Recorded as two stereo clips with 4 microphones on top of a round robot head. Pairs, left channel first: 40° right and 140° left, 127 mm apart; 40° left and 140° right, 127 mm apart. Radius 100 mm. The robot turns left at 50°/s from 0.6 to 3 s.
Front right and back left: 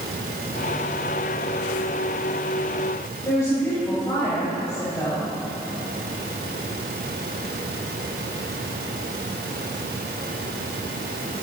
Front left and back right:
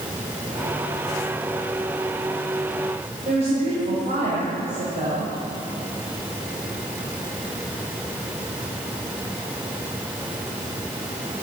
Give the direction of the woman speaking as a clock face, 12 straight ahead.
3 o'clock.